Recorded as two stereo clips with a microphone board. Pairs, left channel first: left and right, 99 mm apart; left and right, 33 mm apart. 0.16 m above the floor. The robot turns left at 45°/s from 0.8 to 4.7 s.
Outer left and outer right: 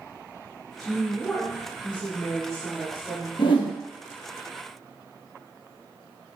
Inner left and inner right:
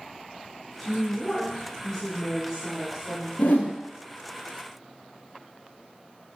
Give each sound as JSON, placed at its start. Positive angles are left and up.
{"t": 0.8, "sound": "a woman speaking", "side_deg": 20, "distance_m": 1.3}
{"t": 3.4, "sound": "a whoosh", "side_deg": 60, "distance_m": 0.7}